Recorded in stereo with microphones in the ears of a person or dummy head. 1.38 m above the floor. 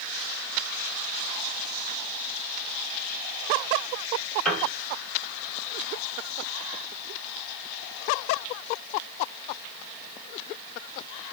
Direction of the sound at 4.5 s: Centre (ahead or behind).